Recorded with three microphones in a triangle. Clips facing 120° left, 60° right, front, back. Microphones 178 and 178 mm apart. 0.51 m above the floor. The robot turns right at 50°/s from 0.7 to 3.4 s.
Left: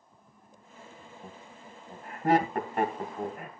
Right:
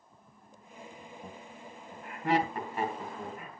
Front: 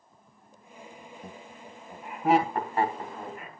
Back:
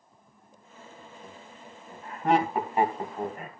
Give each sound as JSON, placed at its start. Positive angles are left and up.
{"t": 1.2, "sound": "laughter", "azimuth_deg": 30, "distance_m": 3.0}